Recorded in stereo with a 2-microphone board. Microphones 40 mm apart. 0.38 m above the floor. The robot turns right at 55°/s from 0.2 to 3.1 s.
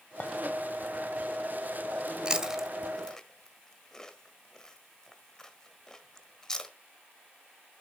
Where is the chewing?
25° right (ahead or behind), 1.4 m; by 6.7 s 10° left (ahead or behind), 1.4 m.